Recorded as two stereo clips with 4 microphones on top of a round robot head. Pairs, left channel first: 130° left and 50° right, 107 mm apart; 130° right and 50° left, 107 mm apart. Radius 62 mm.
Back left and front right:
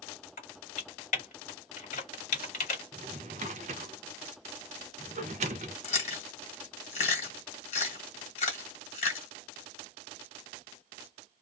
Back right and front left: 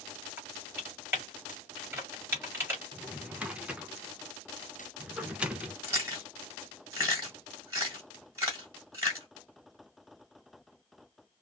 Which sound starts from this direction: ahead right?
A drawer, at 2.9 s.